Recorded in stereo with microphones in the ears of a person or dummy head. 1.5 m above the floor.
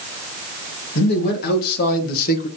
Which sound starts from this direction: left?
A man speaking, at 0.9 s.